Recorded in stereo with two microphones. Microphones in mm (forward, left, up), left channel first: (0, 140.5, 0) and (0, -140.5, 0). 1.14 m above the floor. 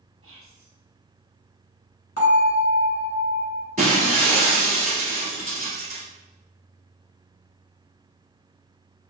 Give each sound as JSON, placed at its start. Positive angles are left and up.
{"t": 0.2, "sound": "whispering", "side_deg": -50, "distance_m": 1.0}
{"t": 2.2, "sound": "a bell", "side_deg": 65, "distance_m": 1.4}
{"t": 3.8, "sound": "breaking glass", "side_deg": -30, "distance_m": 1.2}